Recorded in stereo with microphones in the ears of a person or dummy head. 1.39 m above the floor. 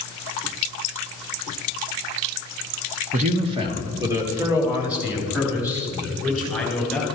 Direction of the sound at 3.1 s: 45° right (ahead or behind).